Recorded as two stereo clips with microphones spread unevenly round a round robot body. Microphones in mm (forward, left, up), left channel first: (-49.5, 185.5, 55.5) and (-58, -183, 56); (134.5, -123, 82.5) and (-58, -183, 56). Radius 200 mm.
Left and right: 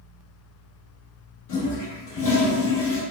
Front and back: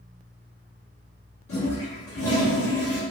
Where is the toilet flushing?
40° left, 0.6 m.